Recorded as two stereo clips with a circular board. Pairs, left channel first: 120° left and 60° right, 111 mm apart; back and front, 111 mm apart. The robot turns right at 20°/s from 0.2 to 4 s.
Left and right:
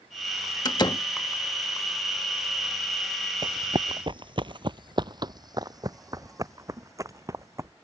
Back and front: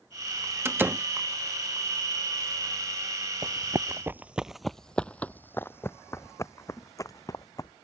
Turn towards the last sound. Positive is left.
turn(degrees=-120)